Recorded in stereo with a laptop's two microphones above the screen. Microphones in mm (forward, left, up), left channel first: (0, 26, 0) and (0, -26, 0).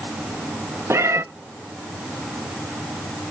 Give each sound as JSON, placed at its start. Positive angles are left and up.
{"t": 0.9, "sound": "a cat meowing", "side_deg": -65, "distance_m": 0.6}